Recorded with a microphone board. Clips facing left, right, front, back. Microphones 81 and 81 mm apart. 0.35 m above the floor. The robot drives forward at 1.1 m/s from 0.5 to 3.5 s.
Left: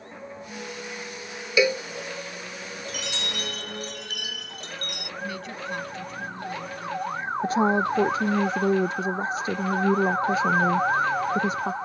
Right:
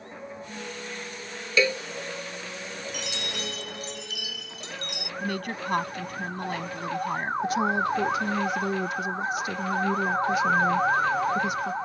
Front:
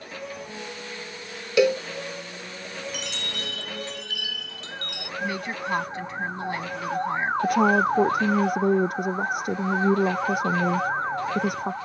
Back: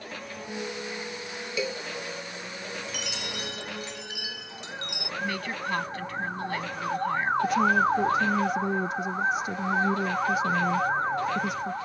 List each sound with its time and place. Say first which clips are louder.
1.6 s a cowbell: left 3 dB, front 12 dB; 15° left
2.9 s a chime: left 2 dB, front 1 dB; 90° left; by 5.1 s 115° left
5.2 s a woman speaking: right 4 dB, front 2 dB; 70° right
7.4 s a woman speaking: left 4 dB, front 4 dB; 30° left